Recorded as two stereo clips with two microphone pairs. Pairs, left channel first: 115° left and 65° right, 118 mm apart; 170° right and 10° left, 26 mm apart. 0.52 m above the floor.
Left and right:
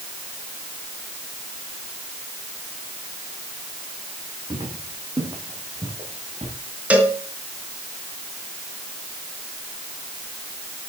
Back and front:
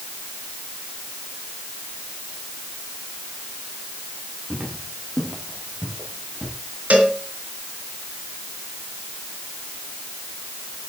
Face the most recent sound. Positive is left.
turn(degrees=15)